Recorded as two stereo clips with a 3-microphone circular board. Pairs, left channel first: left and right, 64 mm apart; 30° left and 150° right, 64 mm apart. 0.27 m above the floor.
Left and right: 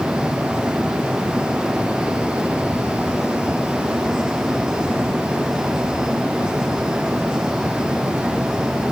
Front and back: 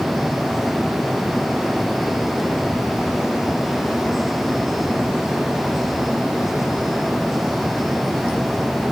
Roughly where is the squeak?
I don't hear a squeak.